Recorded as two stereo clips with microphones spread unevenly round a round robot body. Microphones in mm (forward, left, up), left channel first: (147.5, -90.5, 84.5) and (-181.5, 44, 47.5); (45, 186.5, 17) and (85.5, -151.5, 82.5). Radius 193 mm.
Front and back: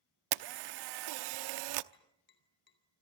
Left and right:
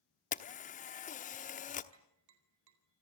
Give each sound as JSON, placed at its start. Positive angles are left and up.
{"t": 0.3, "sound": "a camera shutter", "azimuth_deg": 165, "distance_m": 0.9}
{"t": 1.9, "sound": "tapping", "azimuth_deg": -80, "distance_m": 4.5}